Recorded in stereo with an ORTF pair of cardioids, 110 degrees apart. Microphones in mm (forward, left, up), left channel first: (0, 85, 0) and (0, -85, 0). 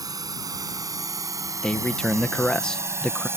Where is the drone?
20° right; by 3.4 s 15° right.